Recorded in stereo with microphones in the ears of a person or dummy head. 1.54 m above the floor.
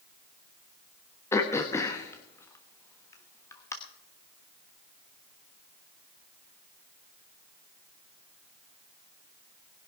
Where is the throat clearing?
15° left (ahead or behind), 1.2 m.